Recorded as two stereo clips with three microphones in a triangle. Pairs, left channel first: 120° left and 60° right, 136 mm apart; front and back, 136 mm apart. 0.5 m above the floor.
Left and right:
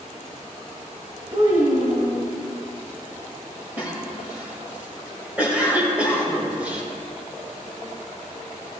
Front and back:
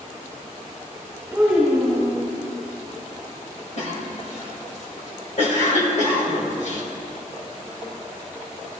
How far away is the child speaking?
About 2.5 m.